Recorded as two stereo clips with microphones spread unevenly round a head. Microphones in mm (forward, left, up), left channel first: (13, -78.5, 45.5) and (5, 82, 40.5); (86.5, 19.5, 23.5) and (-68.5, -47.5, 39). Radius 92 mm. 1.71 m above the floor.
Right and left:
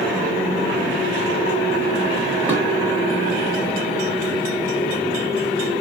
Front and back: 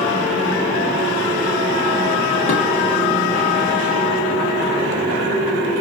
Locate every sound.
2.5 s dishes clattering: 15° right, 1.1 m